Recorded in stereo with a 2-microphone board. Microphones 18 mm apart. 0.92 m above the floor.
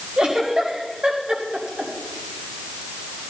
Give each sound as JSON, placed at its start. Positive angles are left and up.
{"t": 0.2, "sound": "a giggle", "side_deg": -75, "distance_m": 4.0}